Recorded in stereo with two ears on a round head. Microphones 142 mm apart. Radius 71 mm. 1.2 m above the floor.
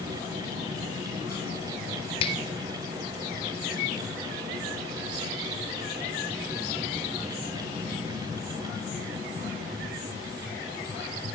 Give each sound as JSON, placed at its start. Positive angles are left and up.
{"t": 2.2, "sound": "a finger snap", "side_deg": 35, "distance_m": 3.0}